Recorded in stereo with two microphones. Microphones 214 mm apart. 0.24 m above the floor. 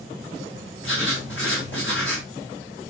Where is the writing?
60° left (ahead or behind), 7 m.